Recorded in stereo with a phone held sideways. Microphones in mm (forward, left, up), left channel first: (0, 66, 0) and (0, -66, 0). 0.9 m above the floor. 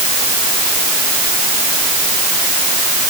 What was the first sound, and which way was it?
Only background noise.